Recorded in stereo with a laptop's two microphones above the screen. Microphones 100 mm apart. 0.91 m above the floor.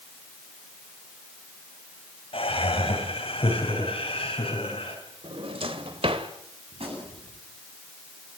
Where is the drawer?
70° right (ahead or behind), 1.9 m.